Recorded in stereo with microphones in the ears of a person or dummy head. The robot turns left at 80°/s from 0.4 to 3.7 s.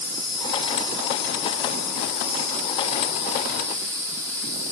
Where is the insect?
115° right, 2 m; by 4.7 s 20° right, 2 m.